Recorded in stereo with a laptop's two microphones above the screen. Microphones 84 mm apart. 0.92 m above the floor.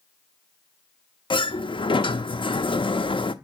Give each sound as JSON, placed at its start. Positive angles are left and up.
{"t": 1.3, "sound": "a sliding door", "side_deg": 75, "distance_m": 0.5}